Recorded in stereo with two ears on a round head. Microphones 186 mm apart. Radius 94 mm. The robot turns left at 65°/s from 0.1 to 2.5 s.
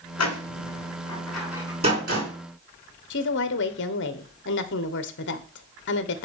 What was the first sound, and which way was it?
A door slam, 80° left.